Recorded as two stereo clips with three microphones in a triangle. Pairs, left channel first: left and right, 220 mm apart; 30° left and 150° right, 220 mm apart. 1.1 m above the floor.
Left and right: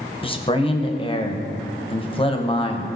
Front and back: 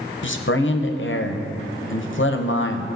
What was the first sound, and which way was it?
A man speaking, 30° left.